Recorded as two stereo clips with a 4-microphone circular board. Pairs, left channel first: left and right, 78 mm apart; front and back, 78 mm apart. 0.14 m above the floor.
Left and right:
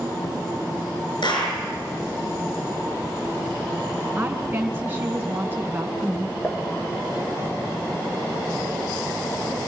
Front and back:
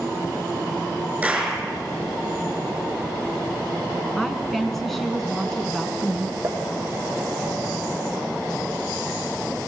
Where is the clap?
105° left, 5.5 m.